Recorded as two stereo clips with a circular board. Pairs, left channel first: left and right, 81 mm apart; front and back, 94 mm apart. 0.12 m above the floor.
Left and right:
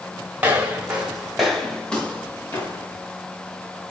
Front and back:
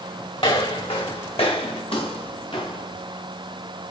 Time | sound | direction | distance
0.4 | footsteps | 20° right | 3.5 m